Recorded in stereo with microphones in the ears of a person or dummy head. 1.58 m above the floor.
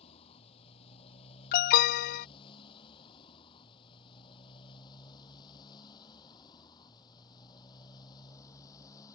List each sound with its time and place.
0.0 s a motorcycle: 30° left (ahead or behind); by 9.2 s 20° left (ahead or behind)
1.5 s an alarm: 50° left (ahead or behind)